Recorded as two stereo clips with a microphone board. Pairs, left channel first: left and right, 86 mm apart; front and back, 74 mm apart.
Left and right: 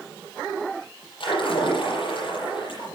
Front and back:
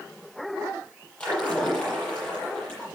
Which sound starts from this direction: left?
A splash, at 1.2 s.